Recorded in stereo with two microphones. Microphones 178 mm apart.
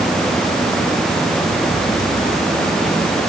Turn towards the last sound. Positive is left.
No sound to turn to.